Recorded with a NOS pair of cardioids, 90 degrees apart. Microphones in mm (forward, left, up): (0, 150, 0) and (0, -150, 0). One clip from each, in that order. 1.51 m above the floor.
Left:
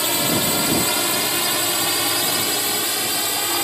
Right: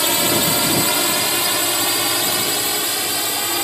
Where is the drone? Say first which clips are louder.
Right 3 dB; 25° right; by 3.6 s 5° right.